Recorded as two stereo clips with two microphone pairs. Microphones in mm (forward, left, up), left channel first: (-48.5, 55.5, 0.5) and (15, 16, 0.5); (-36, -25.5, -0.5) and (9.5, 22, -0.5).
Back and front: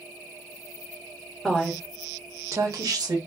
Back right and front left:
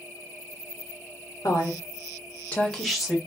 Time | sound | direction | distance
1.4 | a woman speaking | 130° right | 1.2 m